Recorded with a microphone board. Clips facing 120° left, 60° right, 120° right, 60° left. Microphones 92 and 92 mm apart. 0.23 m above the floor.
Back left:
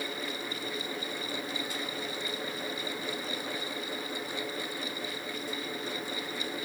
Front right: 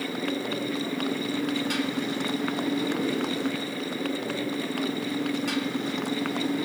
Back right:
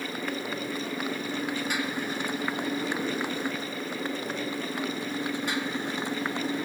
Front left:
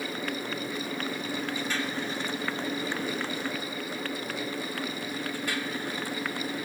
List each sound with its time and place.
0.0 s a motorcycle: 40° right; by 6.7 s 50° right